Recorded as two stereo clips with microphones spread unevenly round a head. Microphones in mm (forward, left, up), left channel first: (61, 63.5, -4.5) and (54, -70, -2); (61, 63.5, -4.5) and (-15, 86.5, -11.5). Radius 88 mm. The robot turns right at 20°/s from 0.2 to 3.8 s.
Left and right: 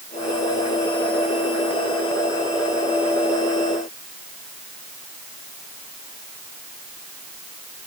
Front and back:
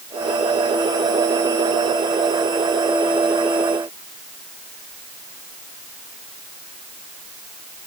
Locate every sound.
Only background noise.